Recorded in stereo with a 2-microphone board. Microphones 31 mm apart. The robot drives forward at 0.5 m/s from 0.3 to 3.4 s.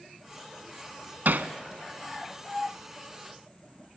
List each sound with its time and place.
1.2 s hammering: 90° right, 0.7 m; by 1.5 s 80° right, 0.7 m